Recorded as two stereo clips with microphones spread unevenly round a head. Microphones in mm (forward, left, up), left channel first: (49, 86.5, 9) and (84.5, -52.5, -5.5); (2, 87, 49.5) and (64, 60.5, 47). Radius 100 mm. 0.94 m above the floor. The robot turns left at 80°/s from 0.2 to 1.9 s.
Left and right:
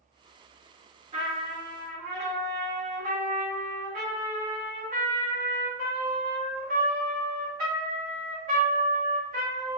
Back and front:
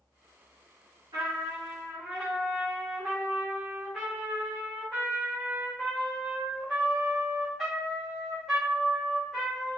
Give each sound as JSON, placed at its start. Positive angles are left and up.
{"t": 1.1, "sound": "a trumpet", "azimuth_deg": -45, "distance_m": 2.0}